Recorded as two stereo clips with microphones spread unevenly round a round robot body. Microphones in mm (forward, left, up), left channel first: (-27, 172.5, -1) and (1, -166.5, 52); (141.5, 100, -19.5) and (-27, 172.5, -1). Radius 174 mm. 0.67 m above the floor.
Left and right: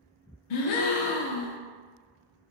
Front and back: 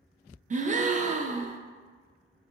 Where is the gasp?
95° left, 0.5 m.